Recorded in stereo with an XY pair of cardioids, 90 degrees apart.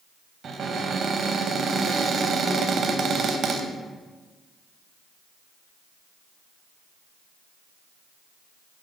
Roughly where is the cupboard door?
Ahead right.